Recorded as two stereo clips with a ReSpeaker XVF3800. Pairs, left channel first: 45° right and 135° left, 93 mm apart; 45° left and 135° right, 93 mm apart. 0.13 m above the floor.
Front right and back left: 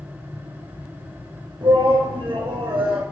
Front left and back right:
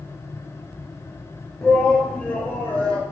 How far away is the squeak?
I don't hear a squeak.